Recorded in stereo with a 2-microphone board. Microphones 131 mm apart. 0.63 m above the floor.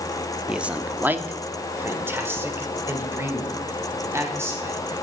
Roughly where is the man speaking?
Centre.